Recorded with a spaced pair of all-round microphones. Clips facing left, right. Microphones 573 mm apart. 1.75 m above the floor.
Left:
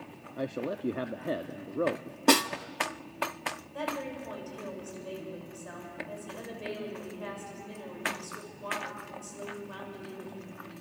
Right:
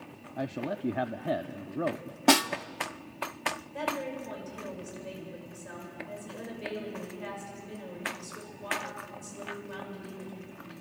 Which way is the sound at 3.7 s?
45° right (ahead or behind).